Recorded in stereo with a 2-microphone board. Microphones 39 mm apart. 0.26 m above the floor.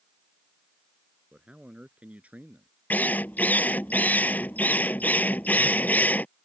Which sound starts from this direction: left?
A drill, at 2.9 s.